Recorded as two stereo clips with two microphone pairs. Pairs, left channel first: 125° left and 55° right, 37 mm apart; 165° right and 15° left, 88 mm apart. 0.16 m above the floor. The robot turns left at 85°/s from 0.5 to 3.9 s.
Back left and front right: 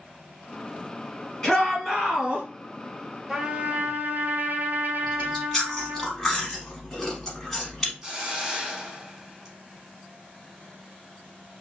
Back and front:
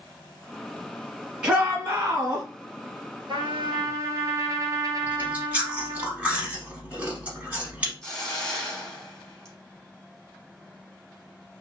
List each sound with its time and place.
1.4 s a shout: 65° left, 1.2 m; by 2.5 s 25° right, 1.2 m
3.3 s a trumpet: 15° left, 0.7 m; by 6.1 s 35° right, 0.7 m
5.1 s chewing: 55° left, 0.9 m
8.0 s a hiss: 95° right, 0.7 m